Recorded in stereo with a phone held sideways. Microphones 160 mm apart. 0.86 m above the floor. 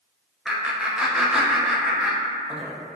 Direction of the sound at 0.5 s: 5° right (ahead or behind).